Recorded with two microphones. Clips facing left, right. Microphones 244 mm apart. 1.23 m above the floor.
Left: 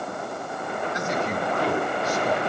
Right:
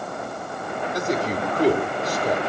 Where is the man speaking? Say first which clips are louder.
Right 5 dB; 35° right (ahead or behind), 1.9 m.